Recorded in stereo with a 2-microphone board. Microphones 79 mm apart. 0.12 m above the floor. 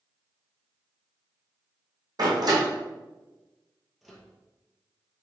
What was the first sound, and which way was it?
A door slam, 60° right (ahead or behind).